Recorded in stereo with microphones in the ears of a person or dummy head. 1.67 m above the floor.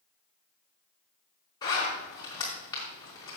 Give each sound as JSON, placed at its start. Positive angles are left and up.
{"t": 1.6, "sound": "a zipper", "side_deg": 20, "distance_m": 4.0}